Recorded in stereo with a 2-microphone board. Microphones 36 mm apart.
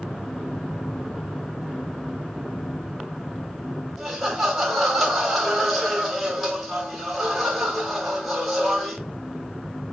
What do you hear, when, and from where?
4.0 s laughter: centre (ahead or behind), 1.3 m